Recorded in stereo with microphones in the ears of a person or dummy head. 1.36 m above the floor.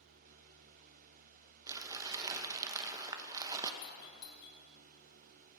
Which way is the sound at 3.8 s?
60° left (ahead or behind).